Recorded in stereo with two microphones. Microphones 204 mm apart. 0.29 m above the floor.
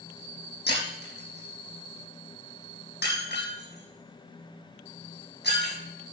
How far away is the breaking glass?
About 5.5 m.